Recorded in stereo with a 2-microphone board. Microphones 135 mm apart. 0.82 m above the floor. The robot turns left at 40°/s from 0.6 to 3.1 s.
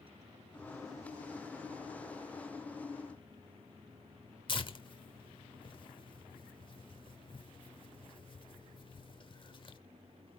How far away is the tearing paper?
About 0.9 m.